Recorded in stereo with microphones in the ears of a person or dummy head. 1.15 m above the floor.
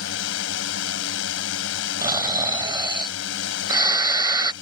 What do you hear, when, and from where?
0.0 s a drone: 75° left (ahead or behind)
2.0 s snoring: 20° right (ahead or behind)